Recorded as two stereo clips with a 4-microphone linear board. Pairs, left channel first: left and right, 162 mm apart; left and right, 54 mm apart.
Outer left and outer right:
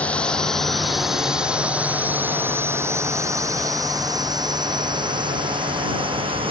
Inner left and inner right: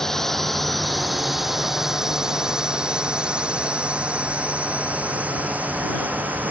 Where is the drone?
10° left (ahead or behind); by 6.5 s 35° right (ahead or behind).